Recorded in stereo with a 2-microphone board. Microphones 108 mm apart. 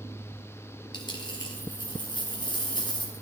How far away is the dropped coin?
About 3.5 m.